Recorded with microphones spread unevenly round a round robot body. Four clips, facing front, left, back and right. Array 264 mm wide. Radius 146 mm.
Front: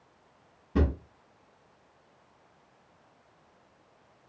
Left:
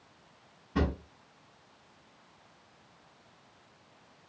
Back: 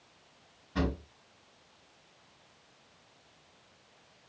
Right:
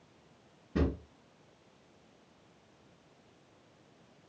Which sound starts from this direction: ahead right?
A drawer, at 0.8 s.